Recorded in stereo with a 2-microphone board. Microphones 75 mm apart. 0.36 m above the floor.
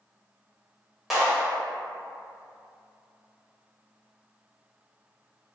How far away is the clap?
About 1.3 m.